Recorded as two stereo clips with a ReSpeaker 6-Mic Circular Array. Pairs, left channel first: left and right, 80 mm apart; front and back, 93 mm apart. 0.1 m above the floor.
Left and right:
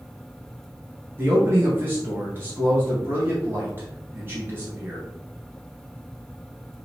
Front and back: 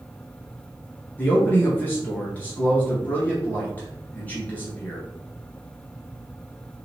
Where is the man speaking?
55° right, 1.5 m.